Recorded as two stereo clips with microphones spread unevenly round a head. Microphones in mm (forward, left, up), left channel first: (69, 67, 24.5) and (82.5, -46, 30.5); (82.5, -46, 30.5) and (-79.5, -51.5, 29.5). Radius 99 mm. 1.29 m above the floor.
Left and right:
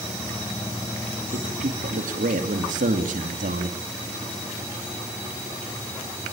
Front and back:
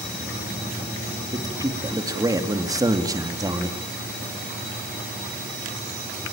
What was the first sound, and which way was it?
A man speaking, 110° right.